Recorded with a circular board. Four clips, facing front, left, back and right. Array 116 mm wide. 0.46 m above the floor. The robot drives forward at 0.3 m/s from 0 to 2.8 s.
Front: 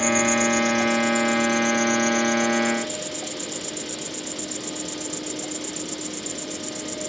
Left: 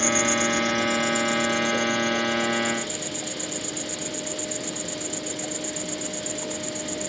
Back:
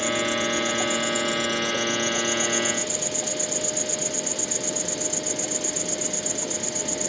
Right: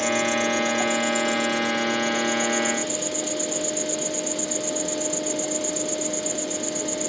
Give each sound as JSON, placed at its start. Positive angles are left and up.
{"t": 0.0, "sound": "an insect", "azimuth_deg": 90}